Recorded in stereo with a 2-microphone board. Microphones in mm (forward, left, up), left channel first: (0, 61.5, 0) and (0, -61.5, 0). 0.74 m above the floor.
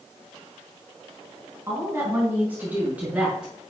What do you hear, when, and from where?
1.7 s a woman speaking: 25° right (ahead or behind), 5.5 m; by 3.5 s 5° right (ahead or behind), 7.5 m